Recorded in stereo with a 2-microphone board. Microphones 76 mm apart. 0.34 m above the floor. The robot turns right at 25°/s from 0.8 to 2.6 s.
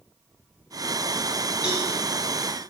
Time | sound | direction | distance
1.6 | a cowbell | 15° right (ahead or behind) | 1.2 m